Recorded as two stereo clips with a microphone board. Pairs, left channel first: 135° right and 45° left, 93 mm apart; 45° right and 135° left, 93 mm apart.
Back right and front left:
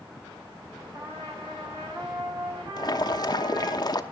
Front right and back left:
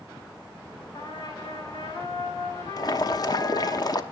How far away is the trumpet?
About 5 m.